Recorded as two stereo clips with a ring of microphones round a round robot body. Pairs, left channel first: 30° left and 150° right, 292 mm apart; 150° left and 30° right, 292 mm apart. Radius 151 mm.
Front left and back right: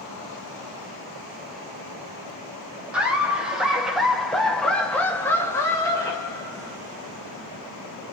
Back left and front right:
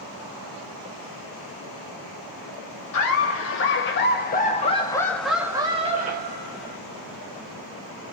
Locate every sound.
2.9 s laughter: 125° left, 1.7 m; by 6.8 s 45° right, 1.2 m